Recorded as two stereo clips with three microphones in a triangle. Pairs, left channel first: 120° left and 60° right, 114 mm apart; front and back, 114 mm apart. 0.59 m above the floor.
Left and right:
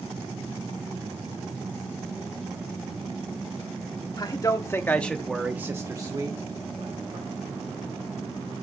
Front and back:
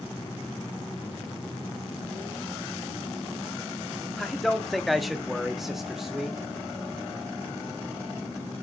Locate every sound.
4.2 s a man speaking: 90° left, 1.3 m; by 7.2 s 95° right, 2.0 m